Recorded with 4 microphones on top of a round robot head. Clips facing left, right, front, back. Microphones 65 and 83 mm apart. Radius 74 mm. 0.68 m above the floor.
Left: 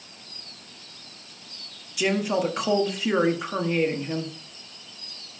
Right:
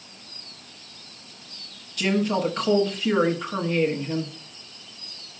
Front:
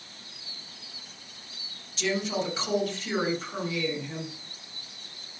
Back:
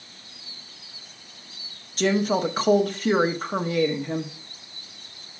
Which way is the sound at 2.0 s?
170° left.